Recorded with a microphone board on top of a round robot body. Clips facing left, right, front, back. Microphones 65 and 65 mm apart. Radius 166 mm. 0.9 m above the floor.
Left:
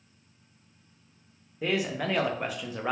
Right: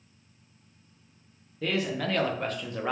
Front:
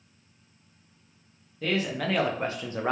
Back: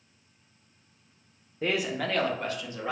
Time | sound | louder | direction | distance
1.6 | a man speaking | even, front 1 dB | 140° left | 0.7 m